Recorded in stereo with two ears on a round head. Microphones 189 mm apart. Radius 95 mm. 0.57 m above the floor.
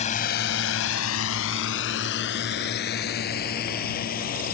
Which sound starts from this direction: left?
A drone, at 0.0 s.